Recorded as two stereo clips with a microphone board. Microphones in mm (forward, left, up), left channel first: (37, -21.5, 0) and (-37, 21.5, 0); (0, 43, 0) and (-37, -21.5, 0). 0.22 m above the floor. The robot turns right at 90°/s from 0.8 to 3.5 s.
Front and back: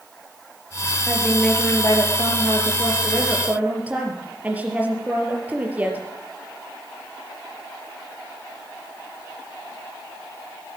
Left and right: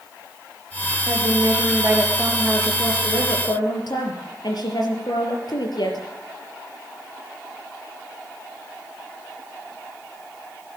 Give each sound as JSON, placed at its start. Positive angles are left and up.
{"t": 1.1, "sound": "a woman speaking", "azimuth_deg": -140, "distance_m": 4.0}